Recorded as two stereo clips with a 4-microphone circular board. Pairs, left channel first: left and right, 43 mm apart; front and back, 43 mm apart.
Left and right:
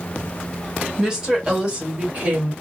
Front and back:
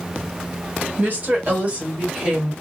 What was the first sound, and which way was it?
A woman speaking, 160° right.